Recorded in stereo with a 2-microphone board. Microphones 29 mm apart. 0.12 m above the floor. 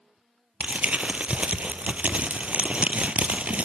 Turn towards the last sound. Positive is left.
turn(degrees=-55)  # may be behind; listen again after turning